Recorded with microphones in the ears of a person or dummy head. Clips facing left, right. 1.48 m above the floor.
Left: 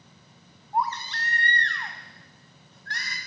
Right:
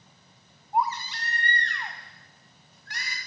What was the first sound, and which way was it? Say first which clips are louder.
A baby crying: right 1 dB; 10° right (ahead or behind).